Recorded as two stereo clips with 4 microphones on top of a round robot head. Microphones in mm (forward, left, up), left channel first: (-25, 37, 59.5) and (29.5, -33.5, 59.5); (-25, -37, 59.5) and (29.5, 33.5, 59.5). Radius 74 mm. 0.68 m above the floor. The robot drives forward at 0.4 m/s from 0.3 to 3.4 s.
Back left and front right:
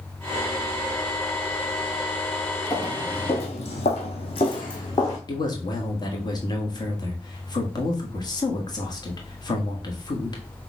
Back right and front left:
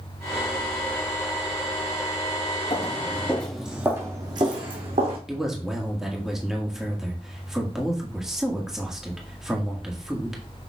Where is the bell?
No bell in this recording.